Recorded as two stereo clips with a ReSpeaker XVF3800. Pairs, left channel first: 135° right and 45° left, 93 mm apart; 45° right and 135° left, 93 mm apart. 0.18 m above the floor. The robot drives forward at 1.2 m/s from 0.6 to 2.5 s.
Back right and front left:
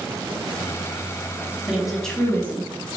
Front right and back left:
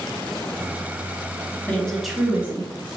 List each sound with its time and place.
1.7 s a woman speaking: 10° right, 1.0 m; by 3.0 s 175° right, 1.1 m